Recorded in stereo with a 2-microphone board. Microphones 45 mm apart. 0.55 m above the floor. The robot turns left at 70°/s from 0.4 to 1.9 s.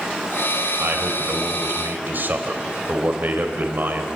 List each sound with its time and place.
0.8 s a man speaking: 50° right, 3 m; by 4.1 s 130° right, 3 m